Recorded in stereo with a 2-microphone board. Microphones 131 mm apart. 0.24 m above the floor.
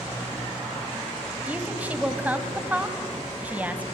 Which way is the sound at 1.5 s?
10° right (ahead or behind).